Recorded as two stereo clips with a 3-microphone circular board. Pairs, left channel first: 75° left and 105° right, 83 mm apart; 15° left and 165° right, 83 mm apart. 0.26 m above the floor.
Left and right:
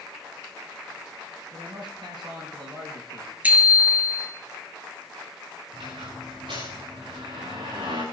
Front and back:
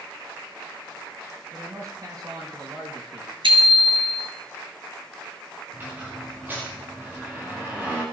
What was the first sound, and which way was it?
A man speaking, 115° right.